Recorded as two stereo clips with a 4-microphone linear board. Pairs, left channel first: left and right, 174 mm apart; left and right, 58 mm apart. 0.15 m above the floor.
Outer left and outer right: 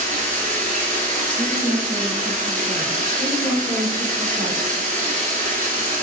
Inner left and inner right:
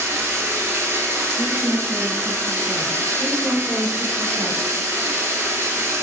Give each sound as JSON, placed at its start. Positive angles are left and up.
{"t": 0.0, "sound": "running water", "side_deg": -45, "distance_m": 1.0}
{"t": 1.4, "sound": "a woman speaking", "side_deg": -30, "distance_m": 1.9}
{"t": 3.2, "sound": "a woman speaking", "side_deg": -20, "distance_m": 1.1}